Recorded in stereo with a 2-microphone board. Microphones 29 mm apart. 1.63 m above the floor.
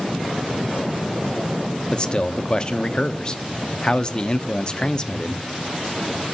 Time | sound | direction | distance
1.9 | a man speaking | 25° left (ahead or behind) | 0.6 m